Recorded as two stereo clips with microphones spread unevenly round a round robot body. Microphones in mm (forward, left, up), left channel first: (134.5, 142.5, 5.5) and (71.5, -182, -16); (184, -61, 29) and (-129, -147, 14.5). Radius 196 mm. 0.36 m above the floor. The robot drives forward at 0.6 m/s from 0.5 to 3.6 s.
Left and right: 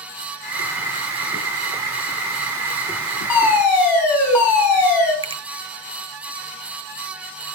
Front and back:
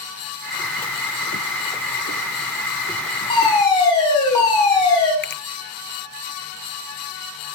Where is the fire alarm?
90° left, 5 m; by 5.1 s 95° left, 5 m.